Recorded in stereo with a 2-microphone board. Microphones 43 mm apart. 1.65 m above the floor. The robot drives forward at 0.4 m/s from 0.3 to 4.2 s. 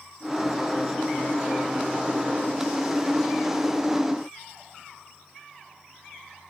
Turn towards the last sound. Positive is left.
No sound to turn to.